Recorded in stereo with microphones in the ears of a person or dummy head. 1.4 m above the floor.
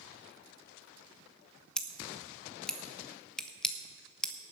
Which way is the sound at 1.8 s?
5° left (ahead or behind).